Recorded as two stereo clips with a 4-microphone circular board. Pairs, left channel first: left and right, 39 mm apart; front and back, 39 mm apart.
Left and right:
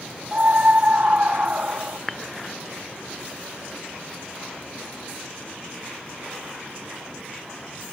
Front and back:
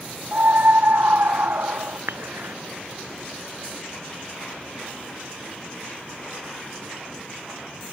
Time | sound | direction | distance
0.3 | a scream | 140° right | ?
2.1 | dishes clattering | straight behind | ?